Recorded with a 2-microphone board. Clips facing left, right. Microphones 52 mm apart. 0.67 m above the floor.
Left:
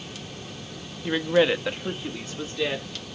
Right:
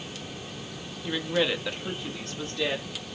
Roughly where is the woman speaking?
Left.